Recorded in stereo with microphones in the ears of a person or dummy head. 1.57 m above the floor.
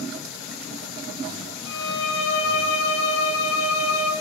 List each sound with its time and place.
1.7 s a violin: 75° left (ahead or behind), 2.5 m